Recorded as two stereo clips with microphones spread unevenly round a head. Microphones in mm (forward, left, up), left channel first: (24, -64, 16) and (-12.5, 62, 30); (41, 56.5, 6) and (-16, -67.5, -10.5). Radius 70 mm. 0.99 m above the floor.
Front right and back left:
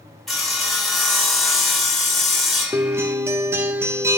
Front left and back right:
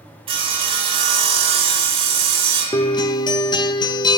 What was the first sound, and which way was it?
Sawing, 160° right.